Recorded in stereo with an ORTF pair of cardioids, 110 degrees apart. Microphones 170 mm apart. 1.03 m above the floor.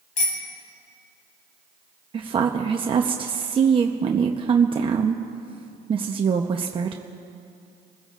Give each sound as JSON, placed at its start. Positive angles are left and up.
{"t": 0.2, "sound": "a bicycle bell", "azimuth_deg": 45, "distance_m": 4.5}
{"t": 2.1, "sound": "a woman speaking", "azimuth_deg": -30, "distance_m": 0.9}